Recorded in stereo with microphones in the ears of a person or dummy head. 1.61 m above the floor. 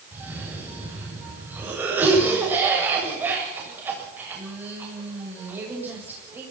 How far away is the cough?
About 7 m.